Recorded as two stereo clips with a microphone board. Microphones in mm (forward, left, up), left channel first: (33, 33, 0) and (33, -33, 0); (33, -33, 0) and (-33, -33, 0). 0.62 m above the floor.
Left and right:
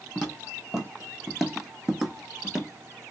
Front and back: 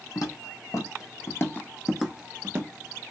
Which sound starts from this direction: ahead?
Footsteps, at 0.1 s.